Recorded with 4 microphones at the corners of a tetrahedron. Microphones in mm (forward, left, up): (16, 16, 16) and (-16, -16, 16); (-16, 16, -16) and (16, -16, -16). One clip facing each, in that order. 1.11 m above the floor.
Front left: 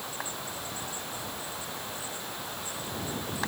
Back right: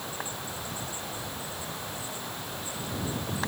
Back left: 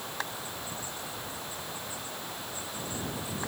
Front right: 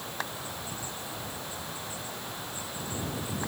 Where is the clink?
No clink in this recording.